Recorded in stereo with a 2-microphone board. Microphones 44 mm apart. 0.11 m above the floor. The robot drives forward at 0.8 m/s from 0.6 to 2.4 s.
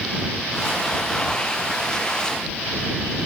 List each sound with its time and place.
Only background noise.